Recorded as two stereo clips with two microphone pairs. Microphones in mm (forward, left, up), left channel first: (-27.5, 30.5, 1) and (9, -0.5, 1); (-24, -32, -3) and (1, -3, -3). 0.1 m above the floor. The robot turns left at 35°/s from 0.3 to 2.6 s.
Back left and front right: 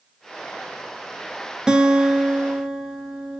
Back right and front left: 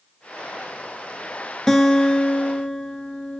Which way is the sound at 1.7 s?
85° right.